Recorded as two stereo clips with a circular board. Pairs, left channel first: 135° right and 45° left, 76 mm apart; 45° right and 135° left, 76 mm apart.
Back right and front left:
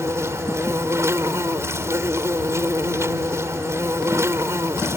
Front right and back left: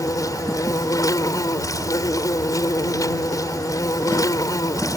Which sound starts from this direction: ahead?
An insect, at 0.0 s.